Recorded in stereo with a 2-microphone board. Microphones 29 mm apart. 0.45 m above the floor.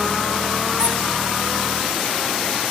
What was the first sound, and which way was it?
A squeak, 55° right (ahead or behind).